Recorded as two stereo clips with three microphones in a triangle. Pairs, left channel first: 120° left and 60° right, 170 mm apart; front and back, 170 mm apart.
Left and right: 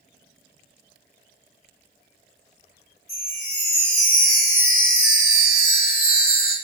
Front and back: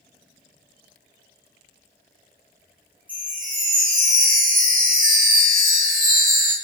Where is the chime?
175° right, 0.7 m.